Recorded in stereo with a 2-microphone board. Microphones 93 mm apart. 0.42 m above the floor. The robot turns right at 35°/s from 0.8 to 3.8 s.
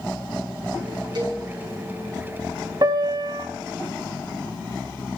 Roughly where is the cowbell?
Right.